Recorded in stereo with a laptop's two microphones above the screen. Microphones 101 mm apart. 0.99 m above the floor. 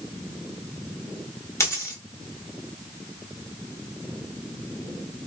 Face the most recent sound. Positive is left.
turn(degrees=30)  # may be behind; listen again after turning